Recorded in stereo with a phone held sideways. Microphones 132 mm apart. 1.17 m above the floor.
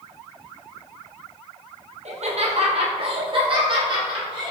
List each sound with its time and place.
2.0 s laughter: 60° right (ahead or behind), 0.8 m; by 4.5 s 35° right (ahead or behind), 2 m